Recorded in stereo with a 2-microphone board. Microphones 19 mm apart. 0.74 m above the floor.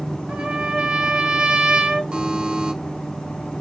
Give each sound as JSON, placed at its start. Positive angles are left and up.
{"t": 0.3, "sound": "a trumpet", "side_deg": -70, "distance_m": 1.5}
{"t": 2.1, "sound": "a buzzer", "side_deg": -70, "distance_m": 2.5}